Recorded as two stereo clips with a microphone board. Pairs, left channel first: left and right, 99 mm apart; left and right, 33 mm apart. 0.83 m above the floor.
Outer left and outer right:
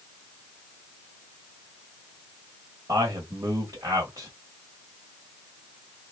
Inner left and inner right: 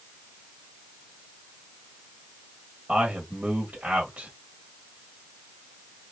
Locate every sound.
2.9 s a man speaking: 35° right (ahead or behind), 1.4 m